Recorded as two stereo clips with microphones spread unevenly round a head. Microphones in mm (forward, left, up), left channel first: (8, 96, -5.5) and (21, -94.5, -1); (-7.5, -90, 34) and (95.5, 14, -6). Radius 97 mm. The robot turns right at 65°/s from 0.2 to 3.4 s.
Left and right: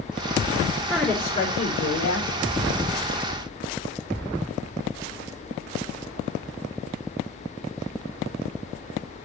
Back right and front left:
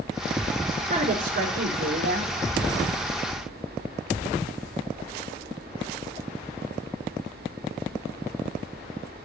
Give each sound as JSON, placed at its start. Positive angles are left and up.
{"t": 0.9, "sound": "a woman speaking", "azimuth_deg": -5, "distance_m": 4.0}